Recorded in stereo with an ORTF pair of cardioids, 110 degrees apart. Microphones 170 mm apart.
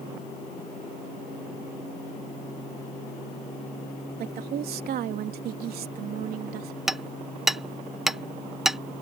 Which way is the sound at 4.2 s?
65° right.